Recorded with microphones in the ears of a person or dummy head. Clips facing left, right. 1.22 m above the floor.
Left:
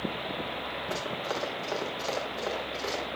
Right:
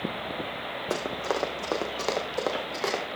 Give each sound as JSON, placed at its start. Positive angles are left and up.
{"t": 0.9, "sound": "running footsteps", "side_deg": -75, "distance_m": 5.0}